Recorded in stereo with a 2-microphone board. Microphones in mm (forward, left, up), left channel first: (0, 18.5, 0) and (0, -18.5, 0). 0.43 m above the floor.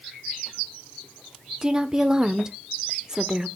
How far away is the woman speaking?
About 0.9 m.